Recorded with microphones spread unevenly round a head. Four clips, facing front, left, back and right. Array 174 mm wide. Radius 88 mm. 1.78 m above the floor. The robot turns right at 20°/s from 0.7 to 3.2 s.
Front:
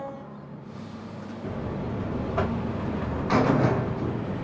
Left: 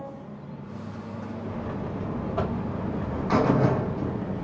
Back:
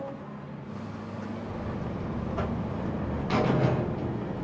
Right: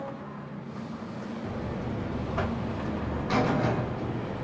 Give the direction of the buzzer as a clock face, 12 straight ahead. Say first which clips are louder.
Left 1 dB, front 3 dB; 12 o'clock.